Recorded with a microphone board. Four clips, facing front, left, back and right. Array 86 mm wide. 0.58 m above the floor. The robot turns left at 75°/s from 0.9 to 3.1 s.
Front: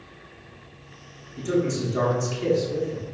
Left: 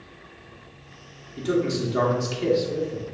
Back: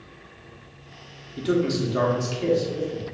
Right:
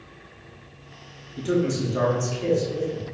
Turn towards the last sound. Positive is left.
turn(degrees=50)